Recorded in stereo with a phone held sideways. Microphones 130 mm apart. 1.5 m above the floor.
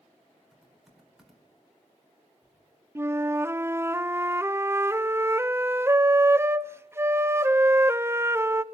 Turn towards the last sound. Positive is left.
turn(degrees=-20)  # may be behind; listen again after turning